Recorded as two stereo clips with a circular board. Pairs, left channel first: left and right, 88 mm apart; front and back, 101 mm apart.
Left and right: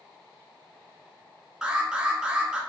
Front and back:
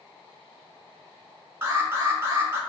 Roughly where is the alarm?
Behind.